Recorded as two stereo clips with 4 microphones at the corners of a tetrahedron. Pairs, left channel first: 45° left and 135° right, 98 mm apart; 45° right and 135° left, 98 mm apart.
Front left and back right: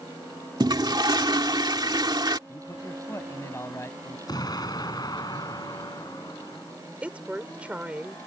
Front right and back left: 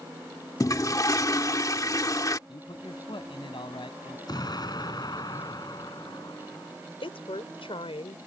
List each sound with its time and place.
0.6 s a toilet flushing: 95° right
2.5 s a man speaking: 15° right
4.3 s an explosion: straight ahead
7.0 s a woman speaking: 60° right